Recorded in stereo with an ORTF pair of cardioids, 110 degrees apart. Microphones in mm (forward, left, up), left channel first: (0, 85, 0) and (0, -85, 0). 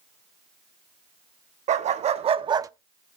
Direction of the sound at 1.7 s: 45° right.